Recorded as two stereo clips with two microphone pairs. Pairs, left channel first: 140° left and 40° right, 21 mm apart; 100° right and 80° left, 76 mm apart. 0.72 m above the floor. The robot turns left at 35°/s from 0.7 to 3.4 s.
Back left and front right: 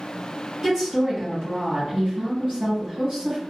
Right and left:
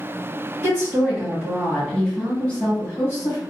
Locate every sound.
0.6 s a woman speaking: 20° left, 1.3 m; by 3.4 s 75° right, 1.3 m